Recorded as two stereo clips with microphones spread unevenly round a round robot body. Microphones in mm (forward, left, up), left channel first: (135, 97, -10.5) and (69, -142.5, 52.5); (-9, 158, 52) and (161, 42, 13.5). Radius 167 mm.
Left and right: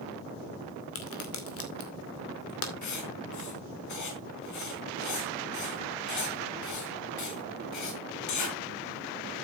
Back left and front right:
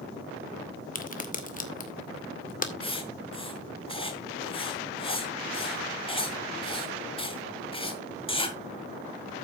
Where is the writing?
80° left, 3 m.